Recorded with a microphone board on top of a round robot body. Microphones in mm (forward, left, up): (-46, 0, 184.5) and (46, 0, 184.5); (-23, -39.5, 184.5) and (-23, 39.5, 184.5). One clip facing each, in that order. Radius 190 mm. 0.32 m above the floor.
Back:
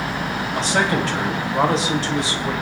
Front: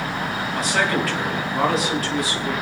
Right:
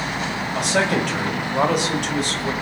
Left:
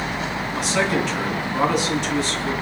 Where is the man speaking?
120° right, 3.5 m.